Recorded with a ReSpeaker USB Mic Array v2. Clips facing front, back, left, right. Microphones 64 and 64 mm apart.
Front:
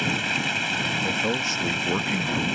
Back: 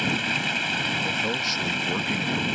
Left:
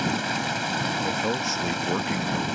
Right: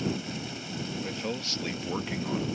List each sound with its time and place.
0.0 s running water: 90° left
1.0 s a man speaking: 50° left